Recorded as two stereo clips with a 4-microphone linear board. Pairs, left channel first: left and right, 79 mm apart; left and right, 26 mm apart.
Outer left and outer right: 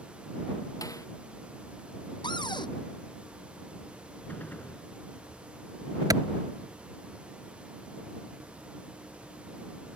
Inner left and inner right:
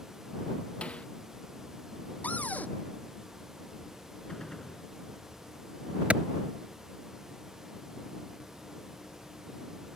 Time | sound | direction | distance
0.8 | a snare drum | 50° left (ahead or behind) | ?
2.2 | a cupboard door | 80° left | ?
4.3 | a gunshot | 25° left (ahead or behind) | ?
6.1 | a clap | 50° right (ahead or behind) | ?